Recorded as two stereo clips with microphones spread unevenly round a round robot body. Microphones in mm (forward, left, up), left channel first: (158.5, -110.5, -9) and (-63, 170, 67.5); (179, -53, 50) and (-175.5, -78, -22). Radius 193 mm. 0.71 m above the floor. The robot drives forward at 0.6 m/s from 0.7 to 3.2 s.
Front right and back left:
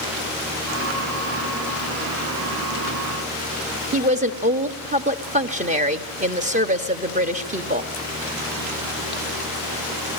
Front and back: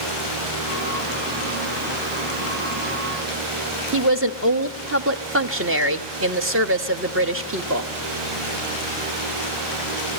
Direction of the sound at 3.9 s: 155° right.